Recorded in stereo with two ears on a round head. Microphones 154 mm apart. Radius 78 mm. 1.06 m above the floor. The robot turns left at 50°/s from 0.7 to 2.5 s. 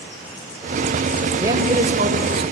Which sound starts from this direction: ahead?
A man speaking, at 1.4 s.